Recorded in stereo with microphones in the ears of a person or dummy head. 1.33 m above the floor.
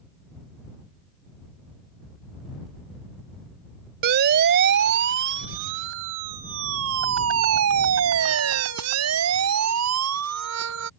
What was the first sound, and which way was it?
A siren, 55° right (ahead or behind).